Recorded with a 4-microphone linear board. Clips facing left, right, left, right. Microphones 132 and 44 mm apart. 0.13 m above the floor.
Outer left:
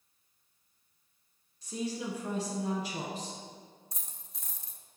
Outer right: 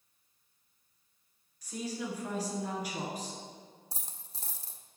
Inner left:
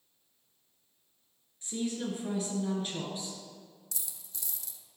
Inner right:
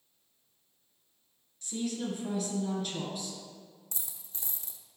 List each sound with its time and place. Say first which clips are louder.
1.6 s a woman speaking: outer left 2 dB, even; 30° left (ahead or behind), 2.5 m
3.9 s a dropped coin: outer right 3 dB, even; 35° right (ahead or behind), 0.8 m